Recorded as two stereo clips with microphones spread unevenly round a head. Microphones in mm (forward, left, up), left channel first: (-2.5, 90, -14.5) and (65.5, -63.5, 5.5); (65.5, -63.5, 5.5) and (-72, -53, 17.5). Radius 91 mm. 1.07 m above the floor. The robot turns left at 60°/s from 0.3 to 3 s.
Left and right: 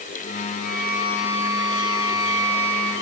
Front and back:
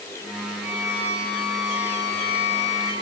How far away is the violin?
About 6.5 m.